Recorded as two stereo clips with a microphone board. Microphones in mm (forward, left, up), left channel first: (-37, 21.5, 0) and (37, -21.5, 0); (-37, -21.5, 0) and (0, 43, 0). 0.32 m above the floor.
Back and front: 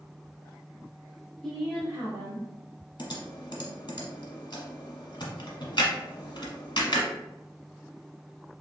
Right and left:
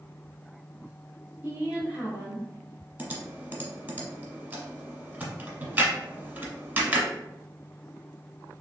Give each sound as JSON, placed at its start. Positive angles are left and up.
{"t": 1.4, "sound": "a woman speaking", "azimuth_deg": 80, "distance_m": 0.9}
{"t": 3.0, "sound": "typing on a keyboard", "azimuth_deg": 120, "distance_m": 1.0}